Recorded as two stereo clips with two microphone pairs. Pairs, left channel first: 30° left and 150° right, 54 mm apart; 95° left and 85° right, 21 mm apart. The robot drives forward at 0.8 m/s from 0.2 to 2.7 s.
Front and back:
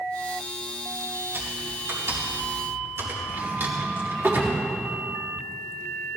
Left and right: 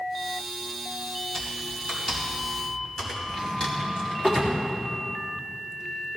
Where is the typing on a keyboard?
165° left, 5.5 m.